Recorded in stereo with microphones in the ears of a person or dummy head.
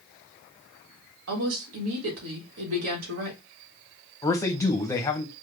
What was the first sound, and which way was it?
A woman speaking, 75° right (ahead or behind).